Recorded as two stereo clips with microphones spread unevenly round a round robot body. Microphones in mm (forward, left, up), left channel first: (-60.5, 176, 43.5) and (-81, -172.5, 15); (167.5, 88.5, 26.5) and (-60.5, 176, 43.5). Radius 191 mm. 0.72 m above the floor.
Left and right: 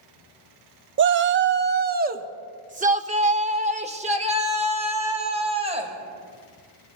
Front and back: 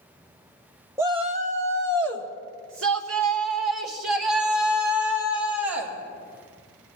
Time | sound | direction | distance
1.0 | a shout | 120° right | 0.6 m